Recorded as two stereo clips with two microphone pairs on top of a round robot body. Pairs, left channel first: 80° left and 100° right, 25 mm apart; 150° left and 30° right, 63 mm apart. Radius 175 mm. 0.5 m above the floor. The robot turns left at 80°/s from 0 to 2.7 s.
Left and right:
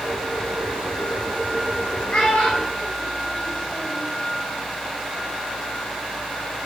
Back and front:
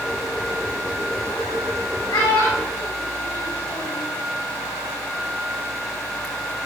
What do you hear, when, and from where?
2.1 s a child speaking: 140° left, 2.5 m; by 4.0 s 90° left, 2.5 m